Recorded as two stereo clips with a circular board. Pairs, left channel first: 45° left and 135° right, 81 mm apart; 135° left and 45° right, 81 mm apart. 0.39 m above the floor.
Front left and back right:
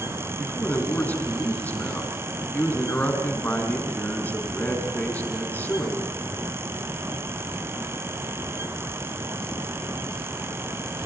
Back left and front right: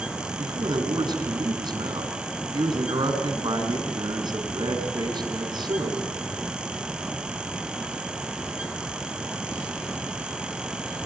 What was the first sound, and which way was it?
A man speaking, 25° right.